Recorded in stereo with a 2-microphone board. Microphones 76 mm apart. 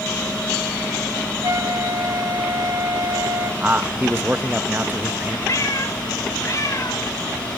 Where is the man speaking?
25° right (ahead or behind), 0.7 m.